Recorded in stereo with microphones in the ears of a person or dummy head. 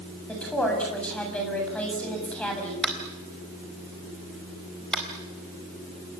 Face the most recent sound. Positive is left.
turn(degrees=0)  # may be behind; listen again after turning